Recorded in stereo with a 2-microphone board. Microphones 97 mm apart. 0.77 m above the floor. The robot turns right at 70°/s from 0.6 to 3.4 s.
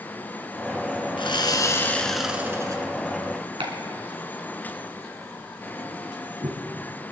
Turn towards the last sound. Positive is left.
turn(degrees=-80)